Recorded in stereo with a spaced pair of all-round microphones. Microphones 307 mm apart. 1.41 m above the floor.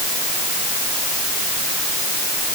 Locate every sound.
Only background noise.